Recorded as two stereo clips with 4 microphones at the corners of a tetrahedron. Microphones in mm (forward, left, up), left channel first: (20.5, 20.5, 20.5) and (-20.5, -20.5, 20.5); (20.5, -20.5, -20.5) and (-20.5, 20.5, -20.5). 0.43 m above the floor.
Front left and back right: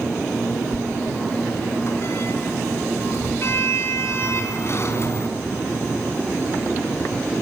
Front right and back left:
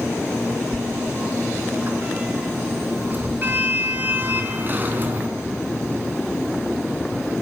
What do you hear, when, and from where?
0.7 s a sliding door: 80° left, 4.5 m